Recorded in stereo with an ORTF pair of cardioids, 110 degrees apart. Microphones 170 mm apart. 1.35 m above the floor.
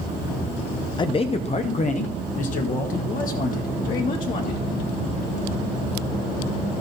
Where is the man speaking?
30° left, 0.5 m; by 4.7 s 55° left, 2.5 m.